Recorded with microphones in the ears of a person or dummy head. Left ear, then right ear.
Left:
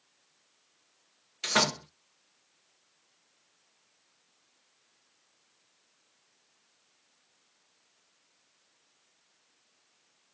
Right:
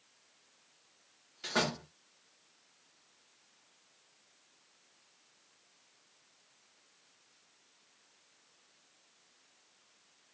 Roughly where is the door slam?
Left.